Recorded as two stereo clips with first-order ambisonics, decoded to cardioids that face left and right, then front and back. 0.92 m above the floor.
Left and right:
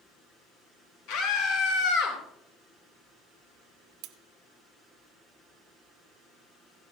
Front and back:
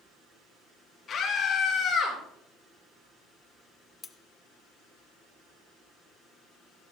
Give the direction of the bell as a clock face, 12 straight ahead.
No bell in this recording.